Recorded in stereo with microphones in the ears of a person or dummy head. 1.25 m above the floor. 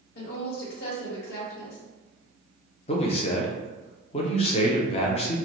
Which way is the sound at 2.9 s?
35° left (ahead or behind).